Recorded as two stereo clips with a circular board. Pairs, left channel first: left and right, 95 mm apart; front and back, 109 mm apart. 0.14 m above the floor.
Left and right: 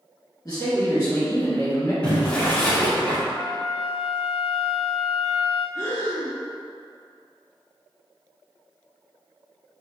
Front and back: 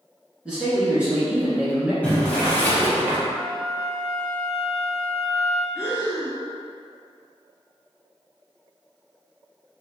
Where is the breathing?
115° left, 1.9 m.